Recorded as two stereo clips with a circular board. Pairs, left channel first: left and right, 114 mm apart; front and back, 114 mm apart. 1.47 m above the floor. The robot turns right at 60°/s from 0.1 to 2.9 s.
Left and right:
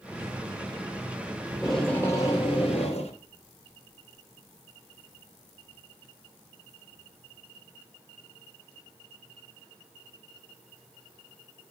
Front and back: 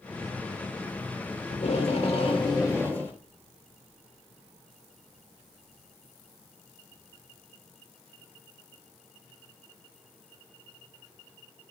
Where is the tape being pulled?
10° right, 3 m; by 3.1 s 75° left, 3 m.